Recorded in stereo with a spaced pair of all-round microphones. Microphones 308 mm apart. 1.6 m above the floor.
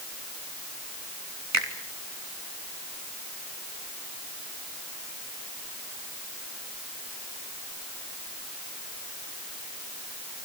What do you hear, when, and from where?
1.5 s a finger snap: 60° right (ahead or behind), 3 m